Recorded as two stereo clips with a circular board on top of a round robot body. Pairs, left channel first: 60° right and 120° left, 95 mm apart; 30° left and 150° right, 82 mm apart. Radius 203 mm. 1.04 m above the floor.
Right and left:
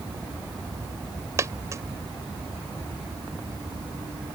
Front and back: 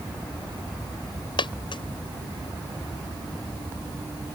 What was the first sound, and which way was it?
A dropped coin, 60° left.